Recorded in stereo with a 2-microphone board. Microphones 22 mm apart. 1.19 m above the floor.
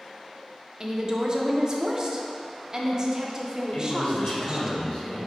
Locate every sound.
0.8 s a woman speaking: 30° right (ahead or behind), 0.6 m
3.7 s a man speaking: 60° left (ahead or behind), 1.5 m